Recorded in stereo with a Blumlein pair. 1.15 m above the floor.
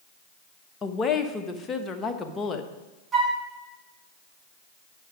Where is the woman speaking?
20° left, 1.0 m.